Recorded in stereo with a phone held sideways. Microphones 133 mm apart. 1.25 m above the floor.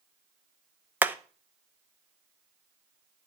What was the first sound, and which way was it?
Hammering, 15° right (ahead or behind).